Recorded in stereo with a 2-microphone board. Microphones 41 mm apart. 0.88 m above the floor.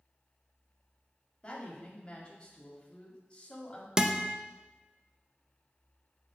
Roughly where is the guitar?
Centre.